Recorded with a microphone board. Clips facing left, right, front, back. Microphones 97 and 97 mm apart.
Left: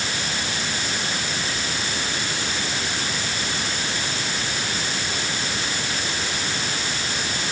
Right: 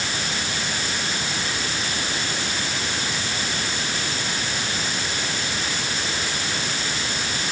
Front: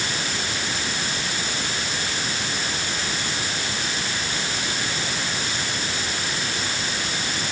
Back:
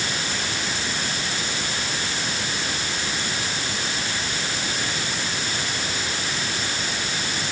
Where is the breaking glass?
I don't hear breaking glass.